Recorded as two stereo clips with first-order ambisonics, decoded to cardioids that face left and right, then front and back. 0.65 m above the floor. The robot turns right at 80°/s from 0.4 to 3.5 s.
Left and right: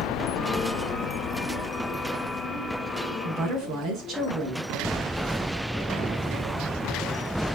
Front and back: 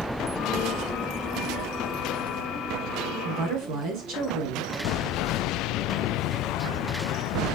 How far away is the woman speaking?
About 6 m.